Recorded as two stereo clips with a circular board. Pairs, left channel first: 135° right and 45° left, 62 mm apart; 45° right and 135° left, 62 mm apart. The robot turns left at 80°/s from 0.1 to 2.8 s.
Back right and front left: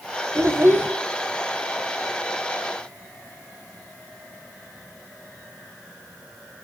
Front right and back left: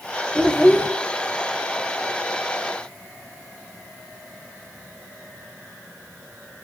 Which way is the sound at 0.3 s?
50° left.